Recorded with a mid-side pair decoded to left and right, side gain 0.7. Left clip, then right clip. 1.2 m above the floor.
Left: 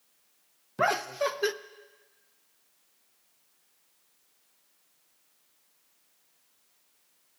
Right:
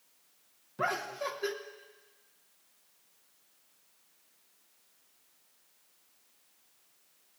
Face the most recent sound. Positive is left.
turn(degrees=40)